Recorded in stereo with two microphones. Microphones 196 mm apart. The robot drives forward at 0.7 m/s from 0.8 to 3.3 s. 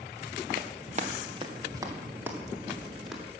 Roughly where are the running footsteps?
Right.